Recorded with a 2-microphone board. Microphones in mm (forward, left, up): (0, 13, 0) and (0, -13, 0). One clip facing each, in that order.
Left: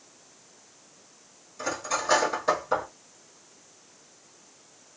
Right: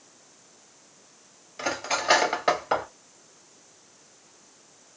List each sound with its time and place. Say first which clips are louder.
1.6 s cutlery clinking: right 2 dB; 50° right (ahead or behind), 1.1 m